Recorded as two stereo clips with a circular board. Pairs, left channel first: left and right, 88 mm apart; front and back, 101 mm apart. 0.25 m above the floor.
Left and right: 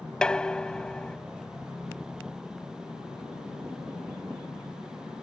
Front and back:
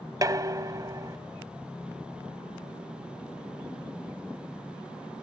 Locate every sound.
0.2 s dishes clattering: 165° left